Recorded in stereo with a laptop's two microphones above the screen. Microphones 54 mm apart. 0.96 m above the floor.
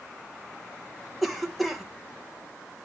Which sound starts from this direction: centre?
A cough, at 1.2 s.